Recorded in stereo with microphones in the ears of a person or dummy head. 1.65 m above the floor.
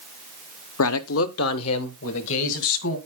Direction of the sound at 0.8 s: 75° left (ahead or behind).